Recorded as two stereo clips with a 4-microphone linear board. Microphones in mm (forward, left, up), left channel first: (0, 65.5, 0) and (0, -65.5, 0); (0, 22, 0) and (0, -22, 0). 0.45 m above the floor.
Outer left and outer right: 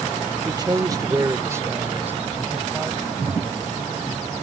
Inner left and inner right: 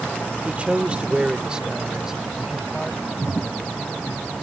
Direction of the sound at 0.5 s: 30° right (ahead or behind).